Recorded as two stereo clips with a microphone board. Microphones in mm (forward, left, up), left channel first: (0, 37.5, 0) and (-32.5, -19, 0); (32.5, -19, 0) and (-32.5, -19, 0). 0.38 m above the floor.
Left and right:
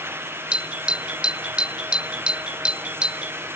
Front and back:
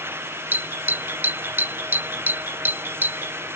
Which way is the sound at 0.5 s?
Straight behind.